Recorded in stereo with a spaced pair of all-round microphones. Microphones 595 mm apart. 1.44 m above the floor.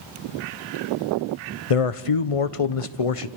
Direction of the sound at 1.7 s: 60° left (ahead or behind).